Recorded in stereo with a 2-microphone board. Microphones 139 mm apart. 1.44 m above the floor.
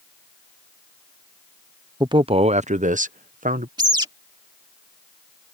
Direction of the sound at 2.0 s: 30° right (ahead or behind).